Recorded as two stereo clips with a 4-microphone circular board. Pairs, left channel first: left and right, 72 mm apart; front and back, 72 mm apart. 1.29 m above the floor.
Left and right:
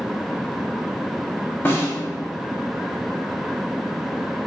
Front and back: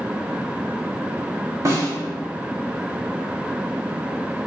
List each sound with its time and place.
1.6 s a snare drum: 145° left, 1.0 m